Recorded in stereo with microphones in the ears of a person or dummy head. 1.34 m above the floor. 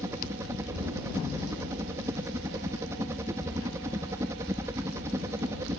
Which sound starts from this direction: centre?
A helicopter, at 0.0 s.